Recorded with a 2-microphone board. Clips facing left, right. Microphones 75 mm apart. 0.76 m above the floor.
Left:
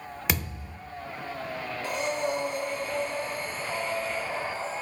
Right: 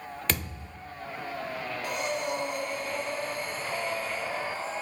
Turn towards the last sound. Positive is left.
turn(degrees=30)  # may be behind; listen again after turning